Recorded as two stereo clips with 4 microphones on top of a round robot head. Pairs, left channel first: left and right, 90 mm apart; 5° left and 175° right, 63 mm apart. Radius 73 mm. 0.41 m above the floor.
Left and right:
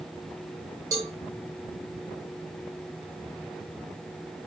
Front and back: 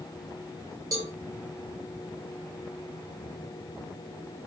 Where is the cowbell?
145° right, 1.1 m.